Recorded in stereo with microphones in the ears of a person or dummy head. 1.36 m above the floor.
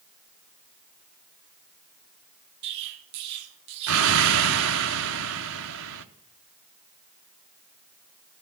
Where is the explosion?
70° right (ahead or behind), 0.7 m.